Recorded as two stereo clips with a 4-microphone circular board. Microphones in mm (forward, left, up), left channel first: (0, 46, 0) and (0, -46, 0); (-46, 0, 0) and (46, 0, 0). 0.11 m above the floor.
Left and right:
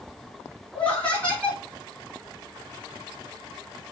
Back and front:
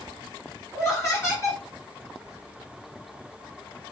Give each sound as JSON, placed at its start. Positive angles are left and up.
{"t": 0.7, "sound": "laughter", "azimuth_deg": 155, "distance_m": 1.7}